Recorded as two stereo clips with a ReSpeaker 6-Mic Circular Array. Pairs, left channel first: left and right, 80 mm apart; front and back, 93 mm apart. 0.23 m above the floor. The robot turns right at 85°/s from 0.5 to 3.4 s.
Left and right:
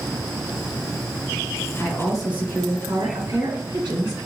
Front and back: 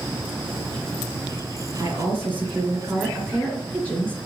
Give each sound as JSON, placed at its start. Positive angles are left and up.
{"t": 1.8, "sound": "a woman speaking", "azimuth_deg": 150, "distance_m": 3.5}